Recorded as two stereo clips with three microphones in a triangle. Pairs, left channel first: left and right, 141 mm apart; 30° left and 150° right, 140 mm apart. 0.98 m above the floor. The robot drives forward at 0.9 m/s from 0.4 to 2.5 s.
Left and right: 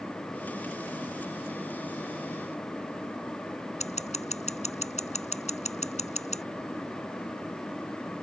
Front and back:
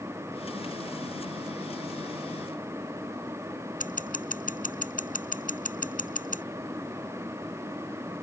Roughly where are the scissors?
Ahead left.